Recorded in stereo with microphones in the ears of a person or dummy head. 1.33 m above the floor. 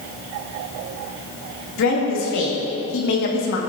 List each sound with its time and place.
1.8 s a woman speaking: 75° left (ahead or behind), 3 m; by 3.6 s 60° left (ahead or behind), 1.6 m